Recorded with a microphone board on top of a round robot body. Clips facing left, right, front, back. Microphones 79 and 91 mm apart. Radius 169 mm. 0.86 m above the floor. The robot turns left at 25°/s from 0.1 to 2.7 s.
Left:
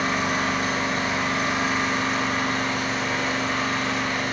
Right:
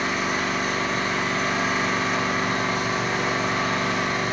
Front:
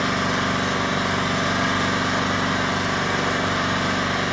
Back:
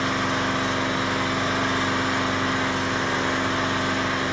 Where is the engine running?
35° left, 1.1 m; by 4.3 s 30° right, 1.1 m.